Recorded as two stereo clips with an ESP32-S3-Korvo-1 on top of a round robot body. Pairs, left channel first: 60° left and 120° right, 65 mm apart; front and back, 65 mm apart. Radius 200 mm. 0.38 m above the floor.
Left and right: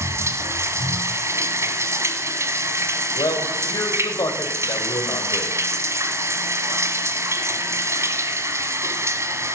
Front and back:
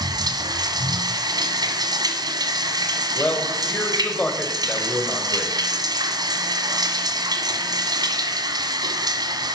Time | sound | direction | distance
0.0 | running water | 165° right | 1.5 m
3.1 | a man speaking | 70° left | 3 m